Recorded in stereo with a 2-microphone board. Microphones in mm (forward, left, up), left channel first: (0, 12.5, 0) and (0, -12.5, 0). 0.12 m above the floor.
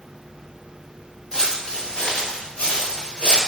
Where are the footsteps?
15° left (ahead or behind), 0.7 m; by 3.4 s 70° left (ahead or behind), 1.3 m.